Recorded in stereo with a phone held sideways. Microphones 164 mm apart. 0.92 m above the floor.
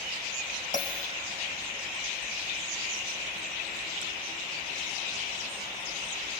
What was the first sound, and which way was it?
A bell, 55° left (ahead or behind).